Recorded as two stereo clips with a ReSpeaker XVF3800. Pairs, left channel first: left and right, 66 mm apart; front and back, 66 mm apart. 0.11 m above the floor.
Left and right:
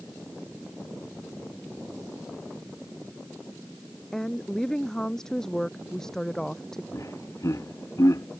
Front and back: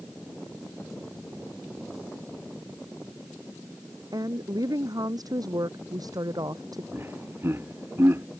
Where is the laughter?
130° left.